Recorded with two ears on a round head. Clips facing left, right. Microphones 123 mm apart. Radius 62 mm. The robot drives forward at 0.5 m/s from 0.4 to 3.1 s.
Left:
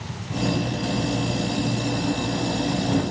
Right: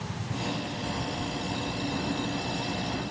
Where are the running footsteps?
No running footsteps in this recording.